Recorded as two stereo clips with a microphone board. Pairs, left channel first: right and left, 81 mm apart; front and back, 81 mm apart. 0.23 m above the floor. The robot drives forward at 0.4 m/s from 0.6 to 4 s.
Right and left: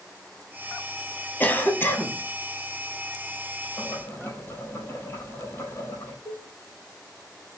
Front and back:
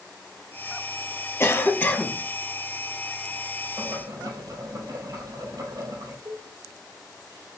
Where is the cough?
40° right, 1.3 m; by 2.2 s 55° right, 1.1 m.